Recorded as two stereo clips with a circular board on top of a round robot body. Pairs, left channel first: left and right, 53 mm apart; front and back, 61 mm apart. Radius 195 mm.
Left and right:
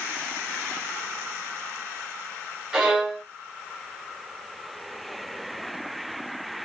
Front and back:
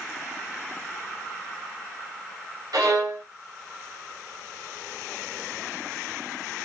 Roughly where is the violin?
Behind.